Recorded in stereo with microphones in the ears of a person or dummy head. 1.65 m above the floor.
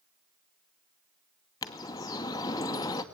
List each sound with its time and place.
1.6 s a bird: 20° left (ahead or behind), 1.4 m